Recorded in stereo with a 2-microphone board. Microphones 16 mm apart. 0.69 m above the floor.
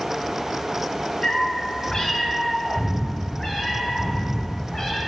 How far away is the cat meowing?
About 0.8 m.